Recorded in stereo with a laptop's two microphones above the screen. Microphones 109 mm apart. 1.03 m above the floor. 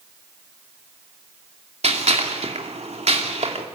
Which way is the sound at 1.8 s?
80° right.